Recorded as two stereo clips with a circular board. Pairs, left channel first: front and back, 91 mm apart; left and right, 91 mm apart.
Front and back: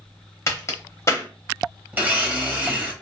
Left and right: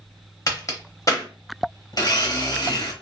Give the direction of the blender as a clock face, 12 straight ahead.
8 o'clock.